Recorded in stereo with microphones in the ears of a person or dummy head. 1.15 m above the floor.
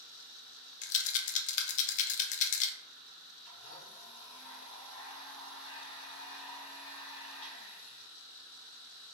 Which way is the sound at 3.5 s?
25° left (ahead or behind).